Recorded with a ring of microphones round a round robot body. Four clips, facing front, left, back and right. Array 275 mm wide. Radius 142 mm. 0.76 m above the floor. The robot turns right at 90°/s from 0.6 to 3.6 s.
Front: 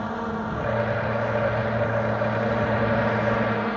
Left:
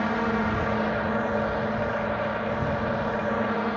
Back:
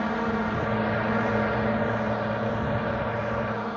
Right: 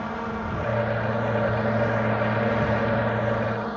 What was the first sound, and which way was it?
A drone, 120° left.